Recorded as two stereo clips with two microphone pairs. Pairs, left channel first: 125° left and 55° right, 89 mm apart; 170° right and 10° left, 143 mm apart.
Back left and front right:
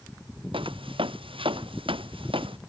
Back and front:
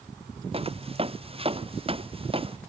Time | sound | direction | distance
0.5 | footsteps | 40° right | ?